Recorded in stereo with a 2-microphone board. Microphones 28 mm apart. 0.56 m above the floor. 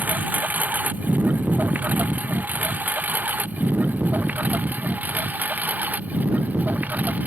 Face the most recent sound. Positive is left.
turn(degrees=-80)